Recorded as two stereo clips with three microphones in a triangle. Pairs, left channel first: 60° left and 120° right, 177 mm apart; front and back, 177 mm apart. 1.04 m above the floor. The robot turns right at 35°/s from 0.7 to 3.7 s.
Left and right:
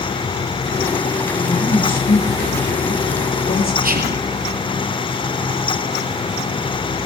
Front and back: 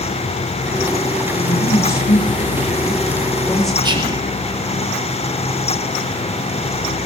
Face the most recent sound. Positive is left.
turn(degrees=-125)